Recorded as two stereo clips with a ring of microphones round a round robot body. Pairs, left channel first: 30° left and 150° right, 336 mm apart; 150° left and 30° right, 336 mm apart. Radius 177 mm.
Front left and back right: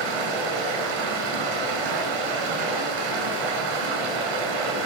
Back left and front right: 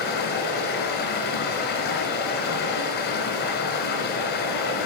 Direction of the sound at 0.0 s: 150° right.